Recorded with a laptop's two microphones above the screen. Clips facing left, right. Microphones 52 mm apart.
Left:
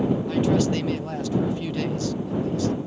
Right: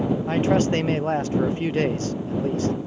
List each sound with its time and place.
0.3 s a man speaking: 35° right (ahead or behind)